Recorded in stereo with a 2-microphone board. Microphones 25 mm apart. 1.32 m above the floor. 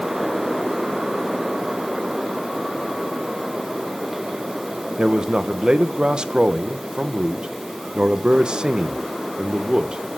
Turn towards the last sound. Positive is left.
turn(degrees=-40)  # may be behind; listen again after turning